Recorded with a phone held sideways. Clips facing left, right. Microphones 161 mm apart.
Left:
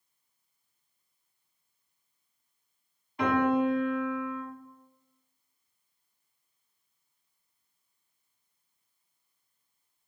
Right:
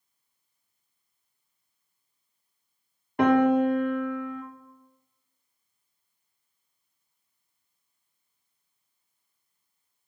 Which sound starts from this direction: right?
A piano, at 3.2 s.